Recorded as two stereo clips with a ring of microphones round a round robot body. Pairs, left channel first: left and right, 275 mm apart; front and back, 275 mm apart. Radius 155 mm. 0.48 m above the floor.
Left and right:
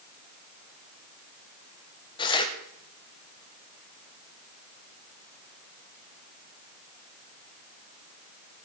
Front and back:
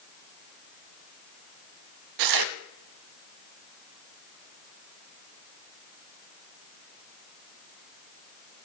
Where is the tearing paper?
165° left, 0.6 m.